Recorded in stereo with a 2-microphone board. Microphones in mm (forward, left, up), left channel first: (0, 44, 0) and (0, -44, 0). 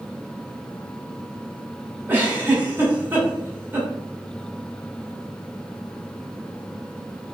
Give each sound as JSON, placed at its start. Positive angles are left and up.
{"t": 2.1, "sound": "a giggle", "side_deg": -20, "distance_m": 2.0}